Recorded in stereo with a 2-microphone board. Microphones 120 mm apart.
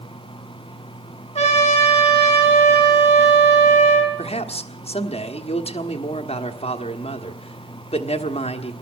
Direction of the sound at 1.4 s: 55° left (ahead or behind).